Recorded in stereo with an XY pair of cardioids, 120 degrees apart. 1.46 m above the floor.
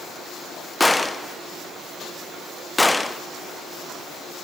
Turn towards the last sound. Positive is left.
turn(degrees=10)